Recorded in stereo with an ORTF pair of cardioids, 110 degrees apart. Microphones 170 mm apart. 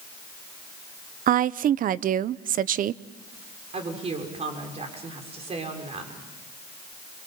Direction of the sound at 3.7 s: 40° right.